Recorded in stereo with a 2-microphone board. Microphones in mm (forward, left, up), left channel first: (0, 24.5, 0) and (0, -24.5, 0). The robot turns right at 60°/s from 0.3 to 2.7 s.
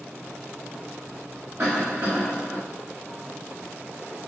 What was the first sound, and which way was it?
A cough, 95° right.